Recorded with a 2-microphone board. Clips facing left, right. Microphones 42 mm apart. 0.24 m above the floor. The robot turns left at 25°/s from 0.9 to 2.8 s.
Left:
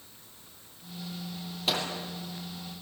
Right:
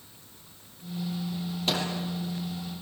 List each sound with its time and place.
1.7 s a microwave: 5° left (ahead or behind), 6 m; by 1.9 s centre (ahead or behind), 6 m